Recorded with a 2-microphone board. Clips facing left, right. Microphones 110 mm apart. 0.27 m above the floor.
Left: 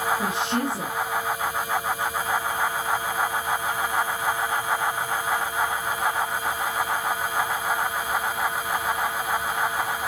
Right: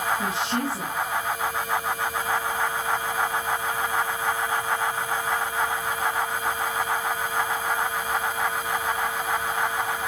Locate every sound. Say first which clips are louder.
0.2 s a woman speaking: left 1 dB; 20° left (ahead or behind), 5 m